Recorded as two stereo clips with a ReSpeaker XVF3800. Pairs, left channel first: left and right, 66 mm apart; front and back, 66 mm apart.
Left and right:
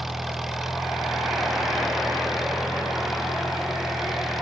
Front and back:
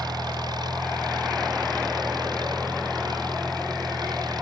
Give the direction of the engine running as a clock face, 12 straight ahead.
6 o'clock.